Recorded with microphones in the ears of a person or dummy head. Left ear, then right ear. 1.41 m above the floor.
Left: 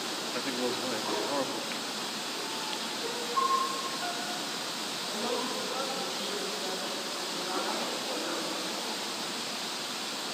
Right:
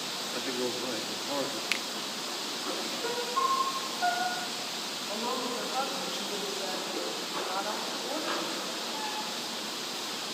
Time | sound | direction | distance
0.3 | a man speaking | 10° left (ahead or behind) | 1.8 m
1.7 | a finger snap | 75° right (ahead or behind) | 0.6 m
3.0 | a piano | 15° right (ahead or behind) | 1.6 m
5.1 | a woman speaking | 10° right (ahead or behind) | 9 m